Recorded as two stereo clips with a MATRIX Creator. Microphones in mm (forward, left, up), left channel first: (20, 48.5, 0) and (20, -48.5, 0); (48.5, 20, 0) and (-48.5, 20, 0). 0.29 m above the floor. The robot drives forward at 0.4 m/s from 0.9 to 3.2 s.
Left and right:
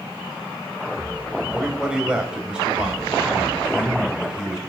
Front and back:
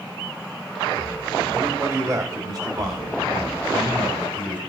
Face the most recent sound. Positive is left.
turn(degrees=-170)